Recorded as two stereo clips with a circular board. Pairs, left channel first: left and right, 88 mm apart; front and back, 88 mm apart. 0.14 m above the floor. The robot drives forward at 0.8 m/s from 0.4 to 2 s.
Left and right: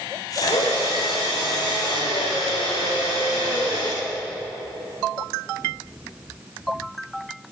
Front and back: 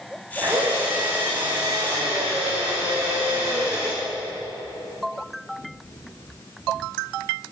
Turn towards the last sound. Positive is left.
turn(degrees=120)